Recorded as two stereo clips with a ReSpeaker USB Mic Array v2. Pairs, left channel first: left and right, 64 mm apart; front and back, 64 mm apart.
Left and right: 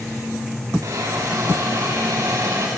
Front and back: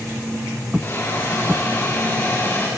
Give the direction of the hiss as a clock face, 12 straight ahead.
2 o'clock.